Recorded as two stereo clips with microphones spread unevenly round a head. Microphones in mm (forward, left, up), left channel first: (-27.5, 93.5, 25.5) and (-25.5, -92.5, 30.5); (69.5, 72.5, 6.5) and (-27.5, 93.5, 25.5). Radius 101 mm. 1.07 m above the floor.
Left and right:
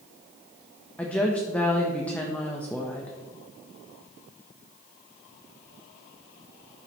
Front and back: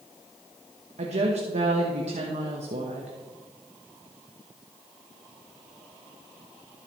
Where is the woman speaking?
170° left, 1.2 m.